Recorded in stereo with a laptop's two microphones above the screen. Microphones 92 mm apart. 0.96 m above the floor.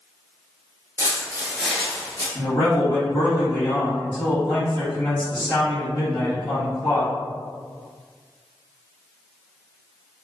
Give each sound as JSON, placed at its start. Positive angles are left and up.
{"t": 1.0, "sound": "footsteps", "side_deg": -30, "distance_m": 1.0}
{"t": 2.4, "sound": "a man speaking", "side_deg": 45, "distance_m": 1.5}